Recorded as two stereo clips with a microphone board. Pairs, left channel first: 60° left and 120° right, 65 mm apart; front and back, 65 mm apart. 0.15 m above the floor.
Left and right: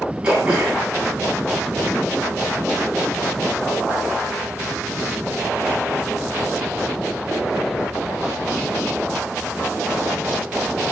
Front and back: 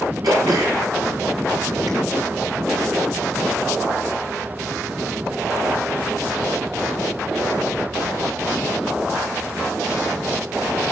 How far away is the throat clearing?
About 8 m.